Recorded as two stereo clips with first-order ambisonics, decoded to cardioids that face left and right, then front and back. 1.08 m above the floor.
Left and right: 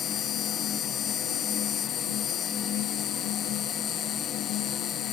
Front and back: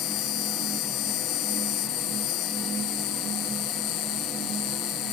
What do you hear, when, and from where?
0.0 s an insect: 30° left